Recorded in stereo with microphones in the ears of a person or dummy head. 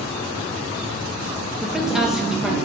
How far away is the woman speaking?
About 1.5 m.